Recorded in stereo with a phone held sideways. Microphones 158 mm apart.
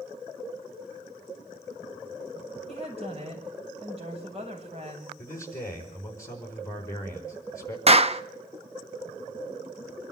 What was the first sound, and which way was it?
A woman speaking, 40° right (ahead or behind).